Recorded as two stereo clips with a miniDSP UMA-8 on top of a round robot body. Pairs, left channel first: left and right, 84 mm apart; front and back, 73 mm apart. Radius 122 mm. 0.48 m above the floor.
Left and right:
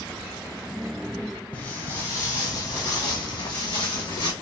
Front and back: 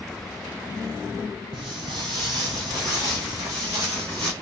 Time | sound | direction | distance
1.5 | footsteps | 160° left | 1.0 m